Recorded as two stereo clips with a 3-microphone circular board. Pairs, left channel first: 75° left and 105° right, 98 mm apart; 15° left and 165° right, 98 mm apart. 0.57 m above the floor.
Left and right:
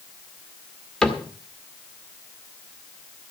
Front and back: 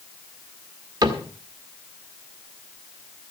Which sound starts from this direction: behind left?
A cupboard door, at 1.0 s.